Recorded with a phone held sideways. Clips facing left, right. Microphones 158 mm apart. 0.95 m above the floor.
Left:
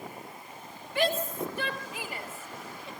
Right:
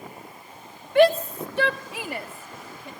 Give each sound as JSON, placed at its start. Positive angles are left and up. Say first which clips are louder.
{"t": 0.9, "sound": "a shout", "louder": "right 11 dB", "side_deg": -60, "distance_m": 1.6}